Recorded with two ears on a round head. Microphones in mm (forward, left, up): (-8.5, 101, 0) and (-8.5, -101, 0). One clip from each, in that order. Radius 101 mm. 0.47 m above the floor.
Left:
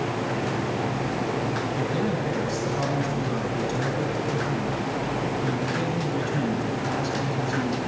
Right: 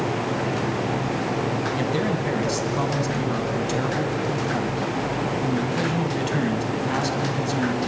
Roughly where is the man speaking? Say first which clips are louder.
Right 2 dB; right.